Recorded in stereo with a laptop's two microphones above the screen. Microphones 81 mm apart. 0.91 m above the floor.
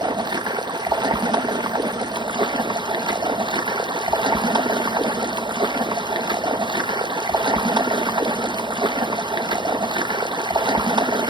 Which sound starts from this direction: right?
Running water, at 0.0 s.